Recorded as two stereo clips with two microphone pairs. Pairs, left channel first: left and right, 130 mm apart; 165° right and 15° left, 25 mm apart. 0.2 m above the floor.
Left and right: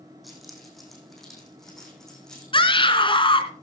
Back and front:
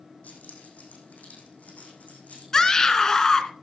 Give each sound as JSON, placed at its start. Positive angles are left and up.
{"t": 0.2, "sound": "keys jangling", "azimuth_deg": 180, "distance_m": 6.5}
{"t": 2.5, "sound": "a scream", "azimuth_deg": 130, "distance_m": 1.9}